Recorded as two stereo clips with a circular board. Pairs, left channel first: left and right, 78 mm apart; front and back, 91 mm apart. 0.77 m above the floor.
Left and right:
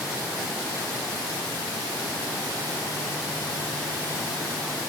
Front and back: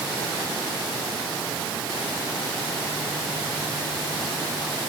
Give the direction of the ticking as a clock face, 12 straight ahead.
No ticking in this recording.